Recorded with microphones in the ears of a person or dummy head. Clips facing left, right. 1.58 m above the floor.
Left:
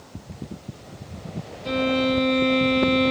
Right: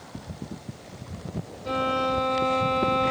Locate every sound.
1.6 s a violin: 35° left (ahead or behind), 0.7 m